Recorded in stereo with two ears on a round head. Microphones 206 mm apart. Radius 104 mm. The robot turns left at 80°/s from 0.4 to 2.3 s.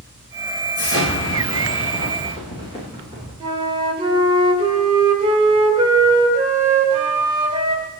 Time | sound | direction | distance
0.8 | an explosion | 145° left | 8.5 m
3.4 | a flute | 25° right (ahead or behind) | 2.5 m